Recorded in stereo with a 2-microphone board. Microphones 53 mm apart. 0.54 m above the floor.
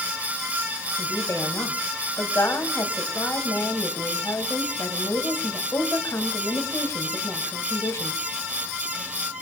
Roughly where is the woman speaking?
Left.